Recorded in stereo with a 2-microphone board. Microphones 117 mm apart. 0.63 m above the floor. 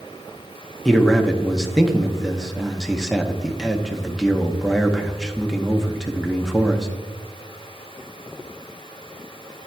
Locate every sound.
0.8 s a man speaking: centre (ahead or behind), 0.5 m